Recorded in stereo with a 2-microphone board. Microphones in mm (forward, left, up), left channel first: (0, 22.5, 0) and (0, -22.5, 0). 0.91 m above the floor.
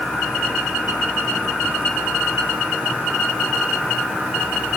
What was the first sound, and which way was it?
Only background noise.